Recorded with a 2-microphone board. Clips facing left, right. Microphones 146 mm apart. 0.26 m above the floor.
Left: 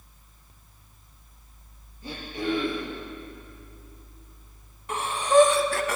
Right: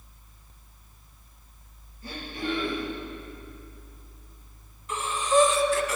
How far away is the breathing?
About 0.9 m.